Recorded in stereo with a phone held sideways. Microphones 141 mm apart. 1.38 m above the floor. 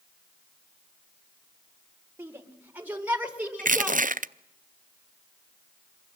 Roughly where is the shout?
Centre.